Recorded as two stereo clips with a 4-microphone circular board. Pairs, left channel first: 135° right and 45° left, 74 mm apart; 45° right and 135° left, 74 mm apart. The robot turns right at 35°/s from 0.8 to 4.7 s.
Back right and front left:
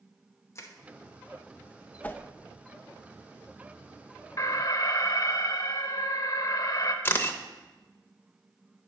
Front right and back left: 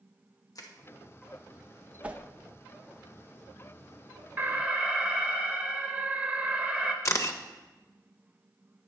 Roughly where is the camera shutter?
Right.